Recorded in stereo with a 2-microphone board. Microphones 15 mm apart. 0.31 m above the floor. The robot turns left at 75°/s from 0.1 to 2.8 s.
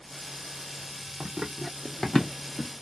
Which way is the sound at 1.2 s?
65° right (ahead or behind).